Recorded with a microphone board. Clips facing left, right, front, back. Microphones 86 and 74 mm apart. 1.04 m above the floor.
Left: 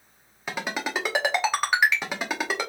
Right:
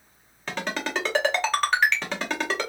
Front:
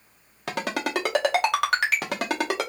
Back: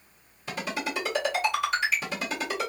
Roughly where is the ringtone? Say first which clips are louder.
Even, front 4 dB; ahead.